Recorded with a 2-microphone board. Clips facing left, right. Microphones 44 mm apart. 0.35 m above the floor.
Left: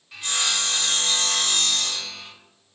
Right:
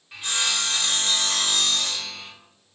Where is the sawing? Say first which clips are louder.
Even; 10° right (ahead or behind), 0.9 m.